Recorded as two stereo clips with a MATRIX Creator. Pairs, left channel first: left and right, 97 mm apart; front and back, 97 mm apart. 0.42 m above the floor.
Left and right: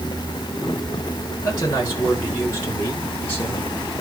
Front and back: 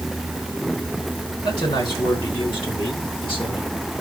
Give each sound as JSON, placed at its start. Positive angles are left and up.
{"t": 1.4, "sound": "a woman speaking", "azimuth_deg": 35, "distance_m": 5.5}